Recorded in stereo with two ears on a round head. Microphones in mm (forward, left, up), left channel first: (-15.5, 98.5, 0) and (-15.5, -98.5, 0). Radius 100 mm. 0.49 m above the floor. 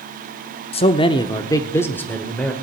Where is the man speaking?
25° left (ahead or behind), 0.8 m; by 2.5 s 5° left (ahead or behind), 1.5 m.